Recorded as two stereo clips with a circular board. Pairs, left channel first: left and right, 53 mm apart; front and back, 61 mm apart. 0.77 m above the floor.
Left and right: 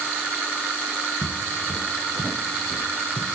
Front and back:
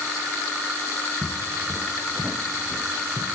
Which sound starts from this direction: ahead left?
Footsteps, at 1.2 s.